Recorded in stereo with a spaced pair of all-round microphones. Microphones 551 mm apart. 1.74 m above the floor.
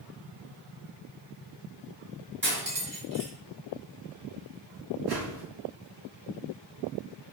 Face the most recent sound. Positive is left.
turn(degrees=-45)  # may be behind; listen again after turning